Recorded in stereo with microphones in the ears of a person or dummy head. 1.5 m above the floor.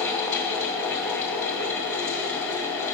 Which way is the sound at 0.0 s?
10° left (ahead or behind).